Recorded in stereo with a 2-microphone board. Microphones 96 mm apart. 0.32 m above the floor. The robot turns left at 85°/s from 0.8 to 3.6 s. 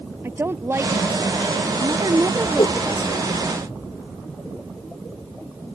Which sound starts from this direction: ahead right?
A woman speaking, at 0.2 s.